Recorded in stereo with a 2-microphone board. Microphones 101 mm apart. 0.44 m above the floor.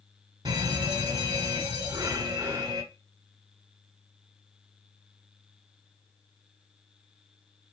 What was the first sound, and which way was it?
A fire alarm, 40° right (ahead or behind).